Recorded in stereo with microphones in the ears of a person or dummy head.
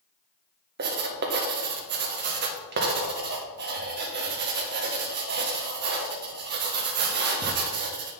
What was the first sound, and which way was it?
Writing, 50° right (ahead or behind).